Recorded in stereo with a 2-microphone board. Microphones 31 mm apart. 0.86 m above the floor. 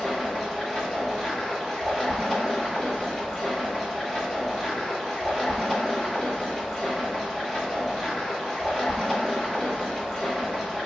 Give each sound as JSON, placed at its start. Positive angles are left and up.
{"t": 0.0, "sound": "running water", "side_deg": 15, "distance_m": 1.0}